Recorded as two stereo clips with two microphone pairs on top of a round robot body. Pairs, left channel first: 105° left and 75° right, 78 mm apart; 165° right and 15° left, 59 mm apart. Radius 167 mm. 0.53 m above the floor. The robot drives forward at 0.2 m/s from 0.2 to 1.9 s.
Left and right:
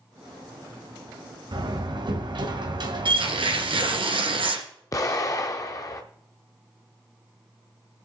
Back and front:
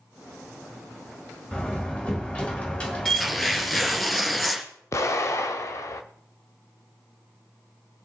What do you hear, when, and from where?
1.5 s a door slam: 90° right, 2 m; by 4.0 s 95° right, 2 m
3.0 s tearing paper: 80° right, 2.5 m
4.9 s an explosion: 150° left, 0.6 m